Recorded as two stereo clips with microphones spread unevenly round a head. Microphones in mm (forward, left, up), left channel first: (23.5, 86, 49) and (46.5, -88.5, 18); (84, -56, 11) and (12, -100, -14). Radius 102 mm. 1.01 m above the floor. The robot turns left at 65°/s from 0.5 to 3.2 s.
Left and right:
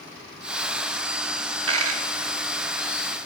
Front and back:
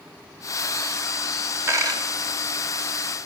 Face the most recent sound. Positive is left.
turn(degrees=175)